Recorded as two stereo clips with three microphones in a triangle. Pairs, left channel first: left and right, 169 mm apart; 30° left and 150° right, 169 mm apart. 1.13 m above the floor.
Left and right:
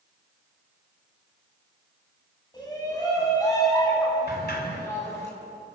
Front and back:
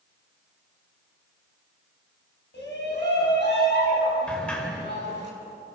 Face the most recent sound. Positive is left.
turn(degrees=110)